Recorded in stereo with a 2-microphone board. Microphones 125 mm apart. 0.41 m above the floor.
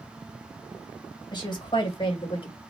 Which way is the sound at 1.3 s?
35° left (ahead or behind).